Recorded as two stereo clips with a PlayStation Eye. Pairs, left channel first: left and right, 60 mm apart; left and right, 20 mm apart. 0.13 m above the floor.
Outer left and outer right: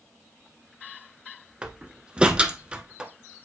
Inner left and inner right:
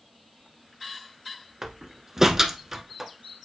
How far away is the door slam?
About 0.9 m.